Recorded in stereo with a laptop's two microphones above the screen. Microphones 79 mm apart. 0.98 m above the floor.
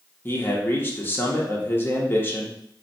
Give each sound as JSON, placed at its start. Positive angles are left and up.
{"t": 0.2, "sound": "a man speaking", "side_deg": 25, "distance_m": 0.6}